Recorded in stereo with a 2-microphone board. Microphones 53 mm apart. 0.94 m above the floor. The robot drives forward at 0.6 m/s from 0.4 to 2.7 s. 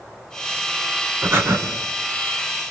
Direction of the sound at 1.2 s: 50° right (ahead or behind).